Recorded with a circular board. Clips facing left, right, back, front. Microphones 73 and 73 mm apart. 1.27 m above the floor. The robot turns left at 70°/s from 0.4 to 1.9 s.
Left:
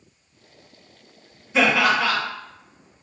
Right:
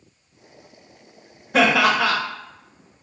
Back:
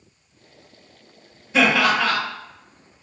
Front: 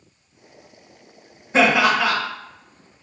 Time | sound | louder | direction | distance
1.5 | laughter | right 2 dB, front 2 dB | 55° right | 0.9 m